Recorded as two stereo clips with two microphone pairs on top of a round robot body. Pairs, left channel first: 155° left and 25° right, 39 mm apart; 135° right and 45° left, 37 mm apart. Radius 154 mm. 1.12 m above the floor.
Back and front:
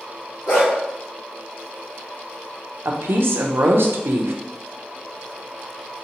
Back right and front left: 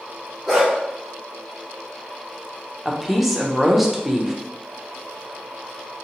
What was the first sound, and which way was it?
A dog barking, 140° left.